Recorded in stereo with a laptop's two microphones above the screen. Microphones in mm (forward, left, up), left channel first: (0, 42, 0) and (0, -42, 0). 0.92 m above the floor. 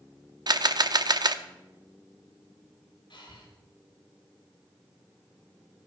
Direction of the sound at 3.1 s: 65° left (ahead or behind).